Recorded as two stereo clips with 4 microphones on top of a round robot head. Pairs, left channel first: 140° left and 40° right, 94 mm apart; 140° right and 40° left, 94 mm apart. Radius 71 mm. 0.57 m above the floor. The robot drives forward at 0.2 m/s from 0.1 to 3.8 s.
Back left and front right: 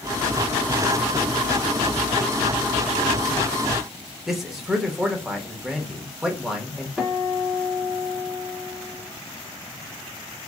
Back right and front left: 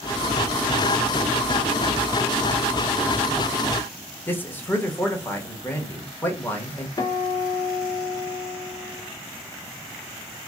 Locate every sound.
4.3 s a man speaking: 115° right, 1.1 m
7.0 s a guitar: 120° right, 1.5 m